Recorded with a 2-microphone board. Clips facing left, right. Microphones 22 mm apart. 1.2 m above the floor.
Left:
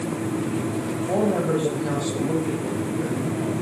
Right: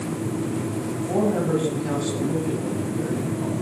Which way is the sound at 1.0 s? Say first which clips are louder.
Even; 80° left.